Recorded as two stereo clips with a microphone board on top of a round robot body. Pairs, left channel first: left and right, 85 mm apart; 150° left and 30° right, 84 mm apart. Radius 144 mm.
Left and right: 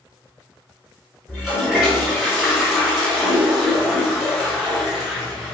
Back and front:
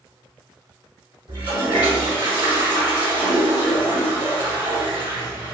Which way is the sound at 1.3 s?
Straight ahead.